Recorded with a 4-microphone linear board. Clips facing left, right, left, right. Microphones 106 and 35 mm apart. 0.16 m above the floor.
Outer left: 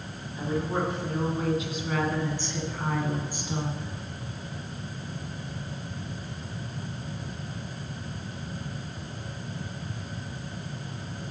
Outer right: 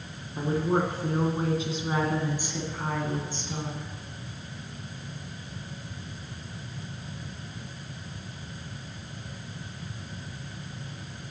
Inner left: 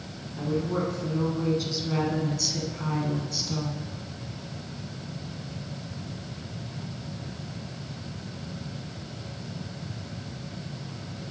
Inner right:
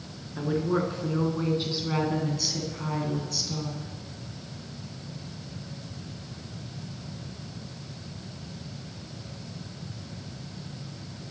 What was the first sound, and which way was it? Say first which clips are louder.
A woman speaking: outer right 3 dB, inner right 1 dB; 45° right (ahead or behind).